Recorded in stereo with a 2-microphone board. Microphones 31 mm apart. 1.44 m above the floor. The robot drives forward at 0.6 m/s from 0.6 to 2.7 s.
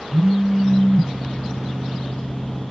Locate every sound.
0.1 s a phone buzzing: 15° right (ahead or behind), 3.5 m